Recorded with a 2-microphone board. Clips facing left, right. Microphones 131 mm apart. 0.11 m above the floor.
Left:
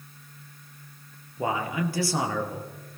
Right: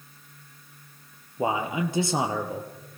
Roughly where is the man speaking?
Right.